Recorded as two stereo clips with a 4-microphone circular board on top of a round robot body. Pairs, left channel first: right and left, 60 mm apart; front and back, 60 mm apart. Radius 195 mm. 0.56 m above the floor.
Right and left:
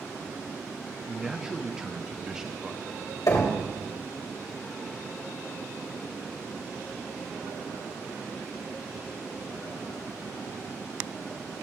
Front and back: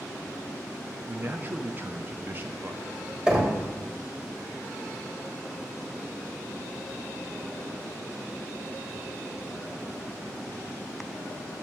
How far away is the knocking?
About 3.5 m.